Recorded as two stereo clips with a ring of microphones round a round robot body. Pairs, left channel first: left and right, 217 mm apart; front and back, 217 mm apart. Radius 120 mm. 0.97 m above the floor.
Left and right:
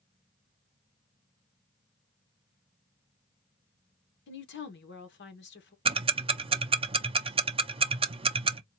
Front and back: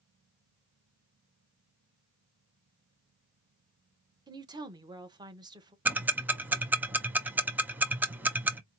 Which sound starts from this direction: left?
A woman speaking, at 4.3 s.